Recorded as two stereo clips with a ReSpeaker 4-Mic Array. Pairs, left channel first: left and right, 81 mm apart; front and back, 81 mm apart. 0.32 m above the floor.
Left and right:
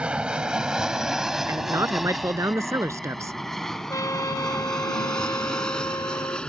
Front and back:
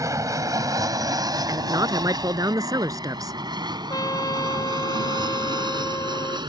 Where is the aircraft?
160° right; by 6.5 s 170° left.